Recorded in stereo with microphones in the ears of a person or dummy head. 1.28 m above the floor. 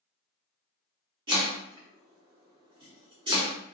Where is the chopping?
25° right (ahead or behind), 0.6 m.